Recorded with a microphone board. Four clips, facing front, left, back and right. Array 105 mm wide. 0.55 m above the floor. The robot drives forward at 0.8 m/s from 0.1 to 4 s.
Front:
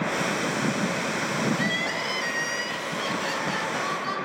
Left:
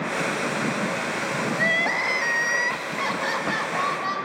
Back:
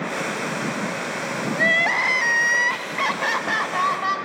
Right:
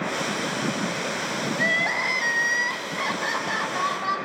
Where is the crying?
Straight behind, 1.7 m.